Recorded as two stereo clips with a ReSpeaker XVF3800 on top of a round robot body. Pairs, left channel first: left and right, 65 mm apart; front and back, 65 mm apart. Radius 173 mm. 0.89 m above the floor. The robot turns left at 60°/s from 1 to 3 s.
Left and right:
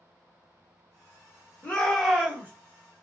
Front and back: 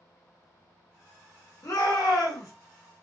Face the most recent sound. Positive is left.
turn(degrees=-50)